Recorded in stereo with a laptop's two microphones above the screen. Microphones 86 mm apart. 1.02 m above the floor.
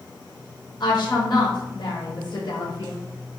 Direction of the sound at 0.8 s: 60° left (ahead or behind).